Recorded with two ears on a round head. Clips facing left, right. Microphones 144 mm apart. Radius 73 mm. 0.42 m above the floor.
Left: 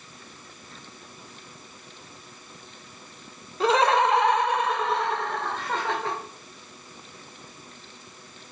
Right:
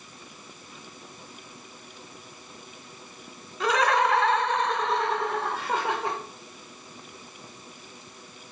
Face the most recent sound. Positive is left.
turn(degrees=-15)  # may be behind; listen again after turning